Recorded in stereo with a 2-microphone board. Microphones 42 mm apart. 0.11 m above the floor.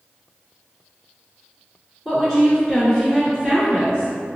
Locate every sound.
2.0 s a woman speaking: 15° left (ahead or behind), 1.1 m